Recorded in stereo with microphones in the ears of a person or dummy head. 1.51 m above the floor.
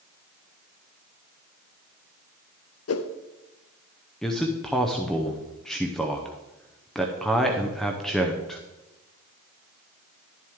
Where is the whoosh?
70° left (ahead or behind), 0.6 m.